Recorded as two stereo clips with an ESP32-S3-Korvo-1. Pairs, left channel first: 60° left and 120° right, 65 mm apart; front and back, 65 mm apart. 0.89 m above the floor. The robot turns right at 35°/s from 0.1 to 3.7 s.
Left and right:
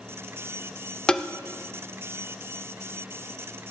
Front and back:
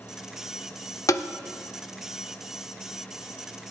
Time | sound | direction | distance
1.1 | tapping | 15° right | 0.7 m